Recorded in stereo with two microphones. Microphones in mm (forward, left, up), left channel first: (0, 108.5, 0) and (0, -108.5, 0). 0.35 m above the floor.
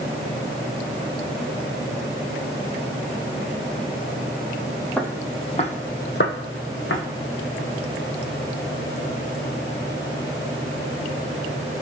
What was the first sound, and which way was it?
Footsteps, 5° left (ahead or behind).